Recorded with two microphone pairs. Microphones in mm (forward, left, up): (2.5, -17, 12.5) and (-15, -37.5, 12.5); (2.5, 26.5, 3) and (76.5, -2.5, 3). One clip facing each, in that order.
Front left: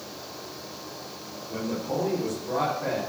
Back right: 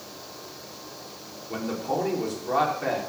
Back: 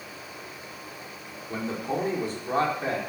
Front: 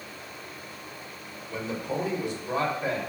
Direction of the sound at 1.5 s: 155° right.